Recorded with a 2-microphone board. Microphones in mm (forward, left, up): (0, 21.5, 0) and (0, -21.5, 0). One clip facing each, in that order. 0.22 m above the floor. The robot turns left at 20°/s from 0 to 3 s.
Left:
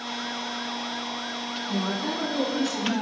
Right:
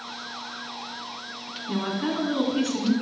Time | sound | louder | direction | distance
1.7 | a woman speaking | right 2 dB | 40° right (ahead or behind) | 2.5 m